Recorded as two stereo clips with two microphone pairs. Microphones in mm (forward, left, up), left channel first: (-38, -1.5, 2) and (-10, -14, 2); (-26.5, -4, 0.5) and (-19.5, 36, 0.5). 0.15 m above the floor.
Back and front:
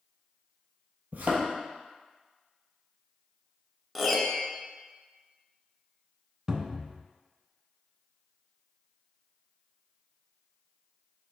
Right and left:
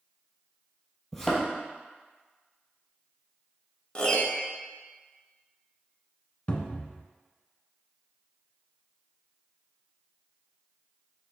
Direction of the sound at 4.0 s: 130° right.